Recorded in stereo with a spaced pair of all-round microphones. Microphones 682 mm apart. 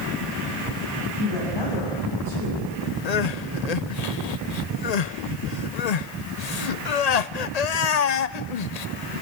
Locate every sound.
1.2 s a woman speaking: 40° left (ahead or behind), 8.5 m
3.0 s crying: 75° left (ahead or behind), 0.7 m